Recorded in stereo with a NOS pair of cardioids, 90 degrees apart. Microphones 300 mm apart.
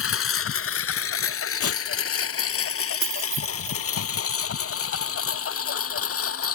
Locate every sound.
0.0 s a lawn mower: 50° left
1.6 s tearing paper: 50° left
3.0 s keys jangling: 45° right